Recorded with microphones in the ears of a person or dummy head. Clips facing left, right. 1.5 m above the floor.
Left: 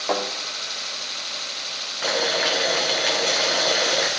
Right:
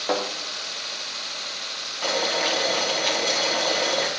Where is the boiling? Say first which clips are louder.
Left 1 dB; 20° left (ahead or behind), 1.0 m.